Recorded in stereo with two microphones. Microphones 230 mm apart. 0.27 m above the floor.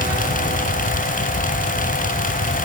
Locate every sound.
Only background noise.